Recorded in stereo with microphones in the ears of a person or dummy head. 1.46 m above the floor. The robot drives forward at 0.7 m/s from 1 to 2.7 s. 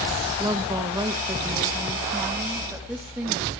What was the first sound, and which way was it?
A woman speaking, 20° right (ahead or behind).